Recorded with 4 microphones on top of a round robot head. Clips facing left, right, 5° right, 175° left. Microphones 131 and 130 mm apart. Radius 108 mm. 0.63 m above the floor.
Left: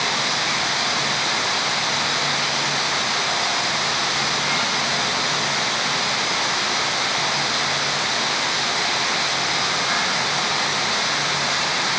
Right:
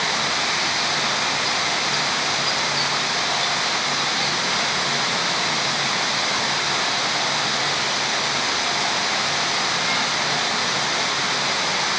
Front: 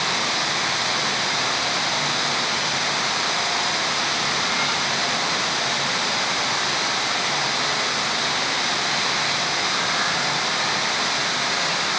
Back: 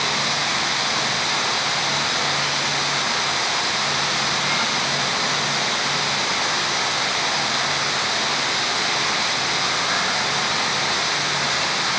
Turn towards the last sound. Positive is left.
No sound to turn to.